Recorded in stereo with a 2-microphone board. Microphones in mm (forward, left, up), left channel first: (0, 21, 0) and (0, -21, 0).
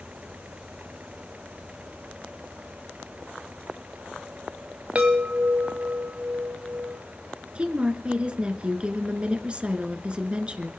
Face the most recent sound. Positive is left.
turn(degrees=-25)  # may be behind; listen again after turning